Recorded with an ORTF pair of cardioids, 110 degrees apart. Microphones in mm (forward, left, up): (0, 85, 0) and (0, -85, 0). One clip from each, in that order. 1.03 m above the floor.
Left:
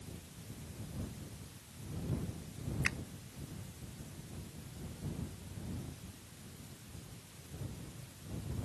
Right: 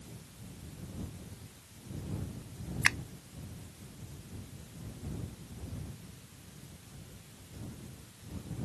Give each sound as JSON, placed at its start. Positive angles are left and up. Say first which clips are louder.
{"t": 2.8, "sound": "a finger snap", "louder": "right 8 dB", "azimuth_deg": -55}